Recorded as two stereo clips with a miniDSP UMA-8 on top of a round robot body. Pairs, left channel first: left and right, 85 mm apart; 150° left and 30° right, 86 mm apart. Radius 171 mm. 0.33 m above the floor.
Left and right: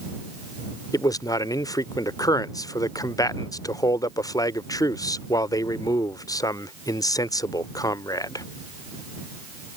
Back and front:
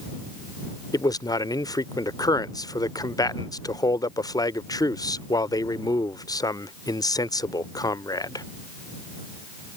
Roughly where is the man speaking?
Behind left.